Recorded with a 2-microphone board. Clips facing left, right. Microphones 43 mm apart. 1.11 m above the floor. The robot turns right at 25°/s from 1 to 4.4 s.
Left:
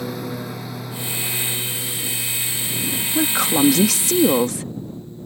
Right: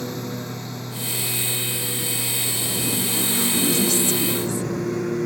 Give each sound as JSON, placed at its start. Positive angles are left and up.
{"t": 0.0, "sound": "a lawn mower", "azimuth_deg": 175}
{"t": 3.1, "sound": "a woman speaking", "azimuth_deg": 70}